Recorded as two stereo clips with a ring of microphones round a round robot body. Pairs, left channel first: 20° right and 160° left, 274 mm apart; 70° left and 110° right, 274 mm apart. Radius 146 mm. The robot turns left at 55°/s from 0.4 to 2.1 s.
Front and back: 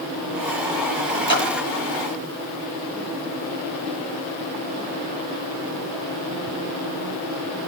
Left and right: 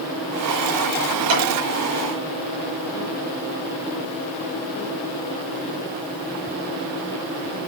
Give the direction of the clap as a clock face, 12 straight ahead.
3 o'clock.